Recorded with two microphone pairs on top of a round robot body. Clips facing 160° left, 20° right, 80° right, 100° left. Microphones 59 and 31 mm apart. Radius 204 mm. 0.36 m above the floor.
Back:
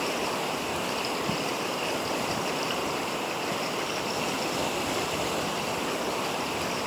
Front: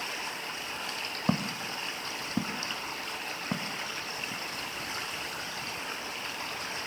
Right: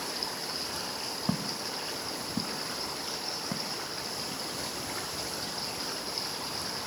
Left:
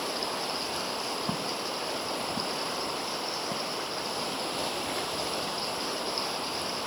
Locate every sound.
0.0 s running water: 140° left
1.3 s footsteps: 5° left; by 4.4 s 10° left